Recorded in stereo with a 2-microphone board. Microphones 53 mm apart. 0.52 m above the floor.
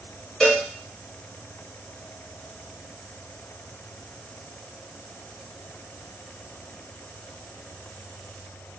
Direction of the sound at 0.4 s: 10° left (ahead or behind).